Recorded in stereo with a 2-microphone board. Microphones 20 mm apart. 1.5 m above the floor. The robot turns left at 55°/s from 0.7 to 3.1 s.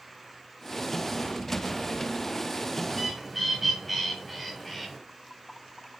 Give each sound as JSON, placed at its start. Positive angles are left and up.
{"t": 2.9, "sound": "a bird", "side_deg": 5, "distance_m": 1.3}